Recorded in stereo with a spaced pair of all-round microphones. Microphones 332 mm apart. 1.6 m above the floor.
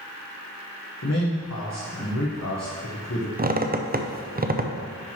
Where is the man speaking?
50° left (ahead or behind), 1.1 m.